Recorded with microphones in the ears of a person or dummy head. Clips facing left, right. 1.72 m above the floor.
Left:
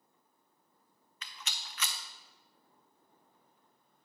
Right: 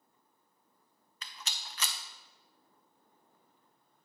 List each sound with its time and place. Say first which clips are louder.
1.2 s a rattle: right 1 dB; 35° right (ahead or behind), 0.5 m